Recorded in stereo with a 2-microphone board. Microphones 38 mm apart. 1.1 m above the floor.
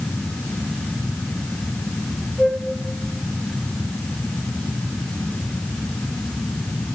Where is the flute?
15° left (ahead or behind), 3 m.